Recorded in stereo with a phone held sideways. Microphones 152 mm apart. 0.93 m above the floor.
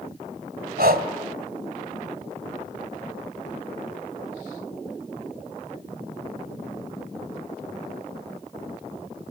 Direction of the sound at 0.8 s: 80° right.